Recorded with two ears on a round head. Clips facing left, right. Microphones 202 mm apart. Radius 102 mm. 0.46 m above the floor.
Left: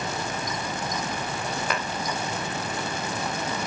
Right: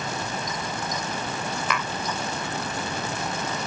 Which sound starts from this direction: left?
Tapping, at 1.7 s.